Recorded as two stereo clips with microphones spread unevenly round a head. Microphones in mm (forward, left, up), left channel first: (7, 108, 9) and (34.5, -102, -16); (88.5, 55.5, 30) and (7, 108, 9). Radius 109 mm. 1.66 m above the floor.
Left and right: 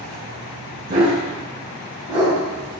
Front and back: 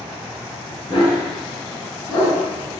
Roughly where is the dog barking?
Behind right.